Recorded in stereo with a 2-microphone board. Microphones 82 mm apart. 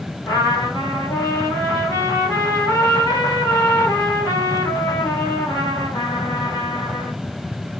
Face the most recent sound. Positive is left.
turn(degrees=40)  # may be behind; listen again after turning